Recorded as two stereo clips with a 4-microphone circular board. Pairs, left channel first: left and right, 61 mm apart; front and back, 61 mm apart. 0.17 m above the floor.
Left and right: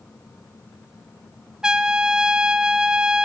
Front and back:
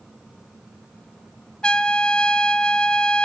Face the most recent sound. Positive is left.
turn(degrees=-40)